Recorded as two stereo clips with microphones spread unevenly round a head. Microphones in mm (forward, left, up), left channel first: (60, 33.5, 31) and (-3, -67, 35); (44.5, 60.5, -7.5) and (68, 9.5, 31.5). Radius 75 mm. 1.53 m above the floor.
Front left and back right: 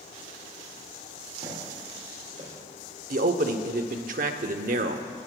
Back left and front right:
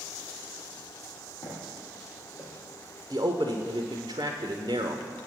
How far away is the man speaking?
About 0.7 m.